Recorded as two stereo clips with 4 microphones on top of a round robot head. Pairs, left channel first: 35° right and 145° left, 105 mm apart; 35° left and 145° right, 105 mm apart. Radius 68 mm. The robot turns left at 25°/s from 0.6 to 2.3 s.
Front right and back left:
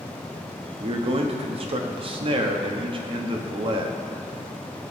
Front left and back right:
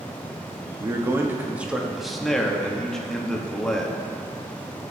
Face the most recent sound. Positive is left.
turn(degrees=120)